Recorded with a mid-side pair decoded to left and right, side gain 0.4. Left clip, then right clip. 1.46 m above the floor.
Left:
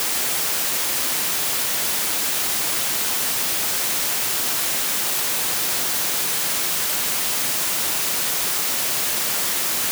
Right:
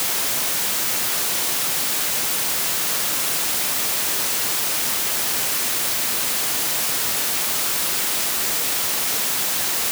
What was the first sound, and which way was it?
Only background noise.